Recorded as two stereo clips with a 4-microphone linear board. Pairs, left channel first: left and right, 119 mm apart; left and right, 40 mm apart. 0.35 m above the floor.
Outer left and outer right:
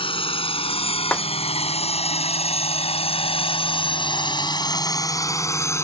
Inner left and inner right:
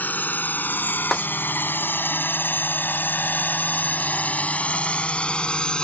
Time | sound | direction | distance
0.0 | a drone | 50° left (ahead or behind) | ?
1.1 | a snare drum | 10° left (ahead or behind) | ?